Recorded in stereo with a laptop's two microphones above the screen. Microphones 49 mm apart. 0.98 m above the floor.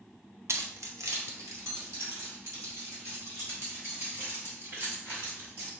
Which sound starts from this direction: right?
Keys jangling, at 0.5 s.